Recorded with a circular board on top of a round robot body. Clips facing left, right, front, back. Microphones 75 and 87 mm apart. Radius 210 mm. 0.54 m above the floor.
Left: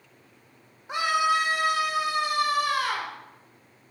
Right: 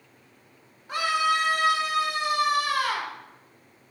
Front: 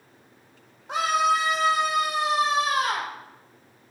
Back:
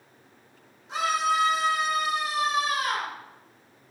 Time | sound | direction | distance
0.9 | a scream | 20° left | 4 m